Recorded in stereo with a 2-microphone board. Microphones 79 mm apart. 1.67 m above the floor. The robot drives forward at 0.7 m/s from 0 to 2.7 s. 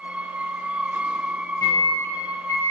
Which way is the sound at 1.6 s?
50° left (ahead or behind).